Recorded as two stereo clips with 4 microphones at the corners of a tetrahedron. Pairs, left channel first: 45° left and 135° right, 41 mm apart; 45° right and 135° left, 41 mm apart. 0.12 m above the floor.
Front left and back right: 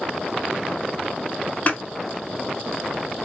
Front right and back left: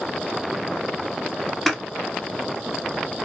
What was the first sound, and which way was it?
Scissors, 35° left.